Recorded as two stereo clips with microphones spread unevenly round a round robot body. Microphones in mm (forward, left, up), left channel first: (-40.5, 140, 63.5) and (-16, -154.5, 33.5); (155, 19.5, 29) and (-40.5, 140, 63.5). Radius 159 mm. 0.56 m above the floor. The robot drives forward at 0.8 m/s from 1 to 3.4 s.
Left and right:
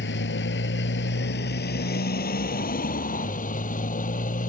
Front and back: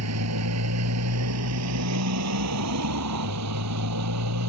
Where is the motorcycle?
150° left; by 4.5 s 160° left.